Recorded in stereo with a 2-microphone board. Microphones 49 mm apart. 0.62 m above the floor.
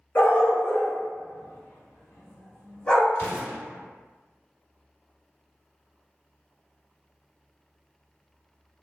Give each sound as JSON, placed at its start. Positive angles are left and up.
{"t": 0.1, "sound": "a dog barking", "side_deg": 40, "distance_m": 0.8}
{"t": 3.1, "sound": "an explosion", "side_deg": 55, "distance_m": 1.9}